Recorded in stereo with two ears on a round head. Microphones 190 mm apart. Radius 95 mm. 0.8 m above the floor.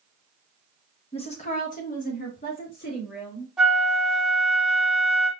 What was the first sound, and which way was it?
A woman speaking, 25° left (ahead or behind).